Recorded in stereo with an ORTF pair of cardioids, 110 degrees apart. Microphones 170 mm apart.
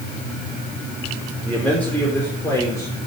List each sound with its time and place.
1.4 s a man speaking: 5° left, 4 m; by 3.0 s 20° left, 4 m